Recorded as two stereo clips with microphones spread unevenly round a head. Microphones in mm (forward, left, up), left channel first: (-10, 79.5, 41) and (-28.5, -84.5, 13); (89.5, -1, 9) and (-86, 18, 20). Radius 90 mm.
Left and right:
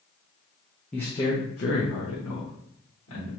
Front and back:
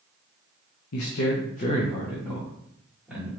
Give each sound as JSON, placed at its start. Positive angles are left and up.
{"t": 0.9, "sound": "a man speaking", "azimuth_deg": 0, "distance_m": 0.7}